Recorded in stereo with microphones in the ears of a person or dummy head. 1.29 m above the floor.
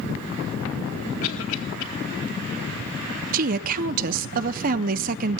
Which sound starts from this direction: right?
A woman speaking, at 3.3 s.